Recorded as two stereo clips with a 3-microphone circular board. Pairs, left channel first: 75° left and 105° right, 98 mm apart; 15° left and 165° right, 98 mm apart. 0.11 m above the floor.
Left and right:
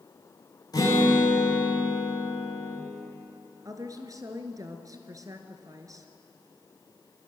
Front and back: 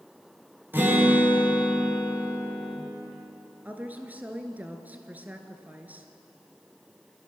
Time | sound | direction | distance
0.7 | a guitar | 125° left | 9 m
3.6 | a woman speaking | 100° right | 1.8 m